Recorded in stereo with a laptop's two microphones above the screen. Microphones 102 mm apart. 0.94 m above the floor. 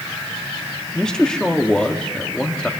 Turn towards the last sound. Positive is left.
turn(degrees=5)  # may be behind; listen again after turning